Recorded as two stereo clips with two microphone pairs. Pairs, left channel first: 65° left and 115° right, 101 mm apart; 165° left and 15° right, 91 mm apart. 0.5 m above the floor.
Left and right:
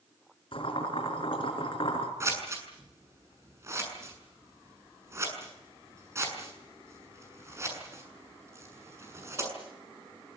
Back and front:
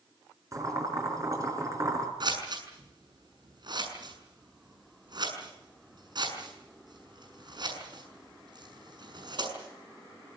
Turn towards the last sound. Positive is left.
turn(degrees=-55)